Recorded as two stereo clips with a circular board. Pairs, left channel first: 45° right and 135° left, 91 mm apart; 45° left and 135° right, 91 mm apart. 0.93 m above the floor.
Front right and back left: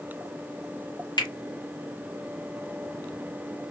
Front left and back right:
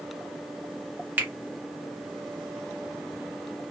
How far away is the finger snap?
About 1.0 m.